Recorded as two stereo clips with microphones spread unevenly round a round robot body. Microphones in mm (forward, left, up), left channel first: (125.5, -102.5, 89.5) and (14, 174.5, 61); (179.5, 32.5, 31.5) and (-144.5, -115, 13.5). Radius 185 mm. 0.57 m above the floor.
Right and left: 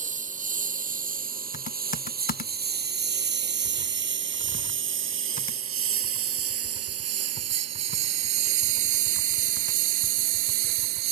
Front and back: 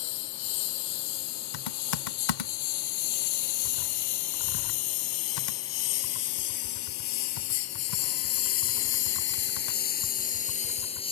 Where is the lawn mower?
45° left; by 11.1 s 100° left.